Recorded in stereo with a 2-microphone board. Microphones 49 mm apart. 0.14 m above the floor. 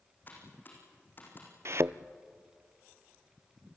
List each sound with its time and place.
0.3 s typing on a keyboard: 40° left (ahead or behind), 6 m
1.6 s a thud: 65° right (ahead or behind), 0.5 m